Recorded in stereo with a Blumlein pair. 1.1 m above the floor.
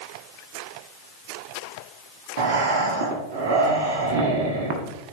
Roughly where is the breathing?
Ahead right.